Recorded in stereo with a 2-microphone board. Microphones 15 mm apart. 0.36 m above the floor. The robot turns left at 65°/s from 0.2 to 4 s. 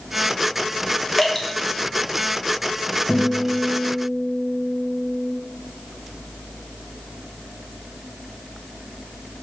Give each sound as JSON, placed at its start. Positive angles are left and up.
{"t": 1.2, "sound": "dripping", "side_deg": 5, "distance_m": 0.8}
{"t": 3.1, "sound": "a guitar", "azimuth_deg": 105, "distance_m": 1.6}